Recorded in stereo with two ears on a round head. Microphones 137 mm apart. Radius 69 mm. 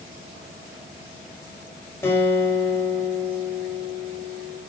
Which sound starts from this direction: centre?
A guitar, at 2.0 s.